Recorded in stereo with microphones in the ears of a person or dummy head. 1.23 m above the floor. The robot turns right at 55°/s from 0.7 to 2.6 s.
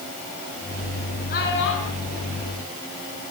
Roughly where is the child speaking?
Ahead left.